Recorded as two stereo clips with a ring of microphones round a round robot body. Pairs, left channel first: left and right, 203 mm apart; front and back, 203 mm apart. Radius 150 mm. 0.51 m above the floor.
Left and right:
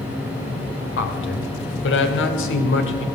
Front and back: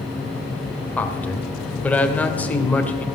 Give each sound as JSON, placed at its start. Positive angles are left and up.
{"t": 1.0, "sound": "a man speaking", "azimuth_deg": 80, "distance_m": 2.0}